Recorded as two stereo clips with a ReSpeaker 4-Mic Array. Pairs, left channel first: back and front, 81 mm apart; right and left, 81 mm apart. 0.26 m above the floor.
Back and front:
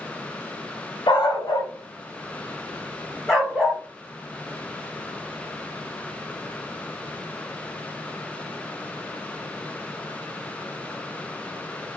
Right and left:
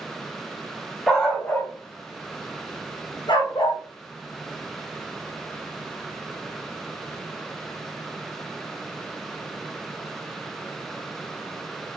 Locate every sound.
1.1 s a dog barking: 175° right, 0.9 m; by 3.8 s 90° right, 1.5 m